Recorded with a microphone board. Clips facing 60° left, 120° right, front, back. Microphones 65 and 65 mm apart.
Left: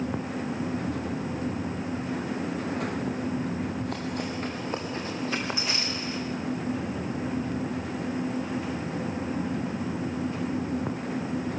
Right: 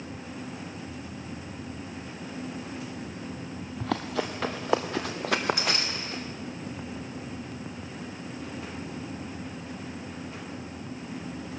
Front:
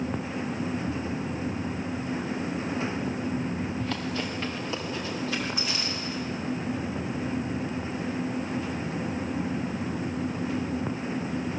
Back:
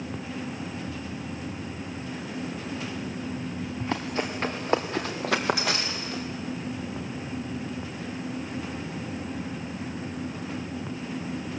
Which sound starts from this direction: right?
Running footsteps, at 3.8 s.